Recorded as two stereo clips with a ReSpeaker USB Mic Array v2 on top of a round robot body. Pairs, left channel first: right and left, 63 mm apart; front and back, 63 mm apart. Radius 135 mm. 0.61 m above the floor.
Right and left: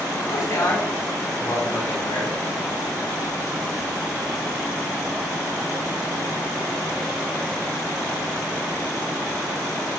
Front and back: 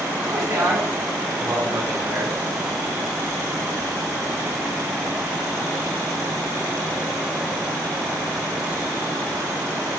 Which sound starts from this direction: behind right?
A man speaking, at 0.2 s.